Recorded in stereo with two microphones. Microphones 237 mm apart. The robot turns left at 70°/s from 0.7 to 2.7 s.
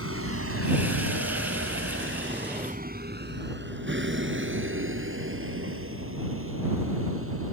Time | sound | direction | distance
0.0 | a vehicle | 75° right (ahead or behind) | ?